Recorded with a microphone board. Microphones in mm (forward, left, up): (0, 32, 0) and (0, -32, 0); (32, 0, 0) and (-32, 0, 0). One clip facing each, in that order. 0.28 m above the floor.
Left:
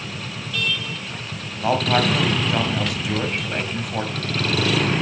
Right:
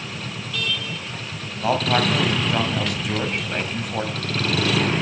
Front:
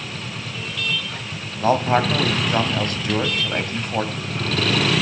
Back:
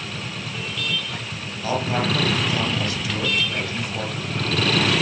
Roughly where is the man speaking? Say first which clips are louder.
Left 1 dB, front 6 dB; ahead.